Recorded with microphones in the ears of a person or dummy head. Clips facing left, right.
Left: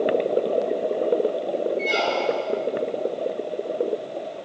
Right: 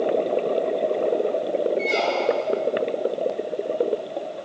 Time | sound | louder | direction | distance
1.8 | a squeak | right 1 dB | 10° left (ahead or behind) | 1.0 m